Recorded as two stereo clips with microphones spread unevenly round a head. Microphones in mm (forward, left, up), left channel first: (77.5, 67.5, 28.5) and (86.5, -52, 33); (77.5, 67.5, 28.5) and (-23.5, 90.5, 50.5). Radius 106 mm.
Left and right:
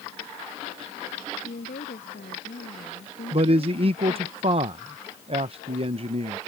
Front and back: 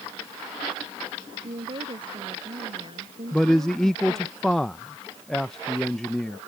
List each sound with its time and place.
1.4 s a woman speaking: 130° left; by 4.3 s 125° left
3.3 s a man speaking: 85° right